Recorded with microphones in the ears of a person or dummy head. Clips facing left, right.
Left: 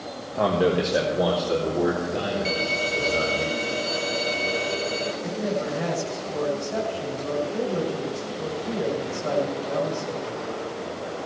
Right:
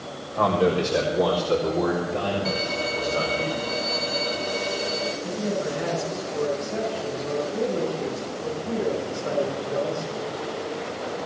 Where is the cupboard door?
I don't hear a cupboard door.